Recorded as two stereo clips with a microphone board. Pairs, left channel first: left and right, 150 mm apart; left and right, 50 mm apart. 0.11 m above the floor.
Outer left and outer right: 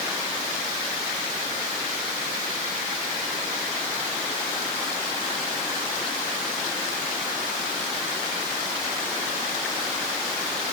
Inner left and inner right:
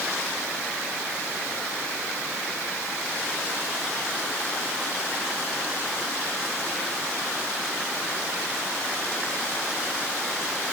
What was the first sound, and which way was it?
Only background noise.